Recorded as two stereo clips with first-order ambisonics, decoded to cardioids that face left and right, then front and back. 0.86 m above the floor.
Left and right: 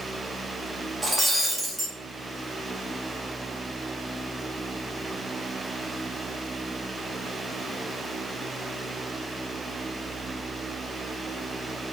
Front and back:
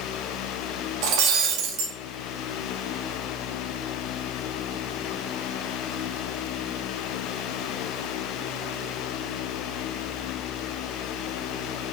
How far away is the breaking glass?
About 0.5 m.